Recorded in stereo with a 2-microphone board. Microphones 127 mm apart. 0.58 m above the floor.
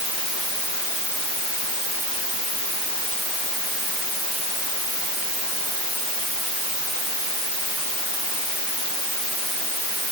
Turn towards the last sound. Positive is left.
No sound to turn to.